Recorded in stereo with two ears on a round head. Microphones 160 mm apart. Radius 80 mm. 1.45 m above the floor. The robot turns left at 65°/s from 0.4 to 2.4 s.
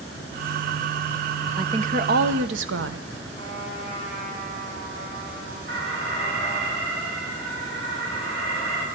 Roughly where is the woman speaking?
Ahead right.